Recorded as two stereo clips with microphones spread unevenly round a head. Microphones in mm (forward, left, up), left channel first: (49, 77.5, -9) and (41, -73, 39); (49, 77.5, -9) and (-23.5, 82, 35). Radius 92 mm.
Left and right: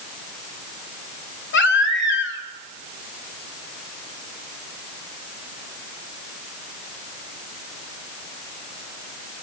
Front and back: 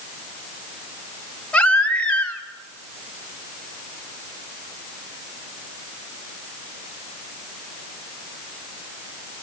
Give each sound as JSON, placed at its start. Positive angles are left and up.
{"t": 1.5, "sound": "a baby crying", "azimuth_deg": 85, "distance_m": 2.5}